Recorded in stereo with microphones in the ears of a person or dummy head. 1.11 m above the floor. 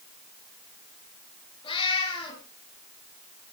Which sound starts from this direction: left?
A cat meowing, at 1.6 s.